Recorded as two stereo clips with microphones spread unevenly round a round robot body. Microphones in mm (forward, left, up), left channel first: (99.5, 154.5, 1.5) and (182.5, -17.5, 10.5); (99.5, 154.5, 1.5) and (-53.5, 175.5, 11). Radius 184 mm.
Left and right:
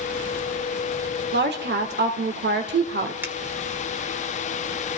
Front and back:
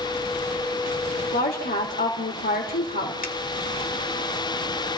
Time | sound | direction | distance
1.3 | a woman speaking | 40° right | 1.9 m
3.2 | a finger snap | 15° left | 1.5 m